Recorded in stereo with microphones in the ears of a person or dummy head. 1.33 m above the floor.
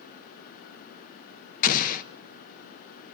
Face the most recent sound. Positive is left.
turn(degrees=50)  # may be behind; listen again after turning